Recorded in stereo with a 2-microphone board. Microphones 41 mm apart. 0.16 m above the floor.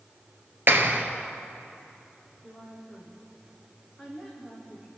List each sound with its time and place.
0.7 s a clap: 55° right (ahead or behind), 2 m
2.4 s a woman speaking: 15° right (ahead or behind), 7 m